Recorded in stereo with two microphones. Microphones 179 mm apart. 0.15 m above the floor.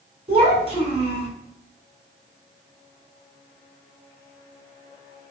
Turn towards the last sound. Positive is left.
turn(degrees=-35)  # may be behind; listen again after turning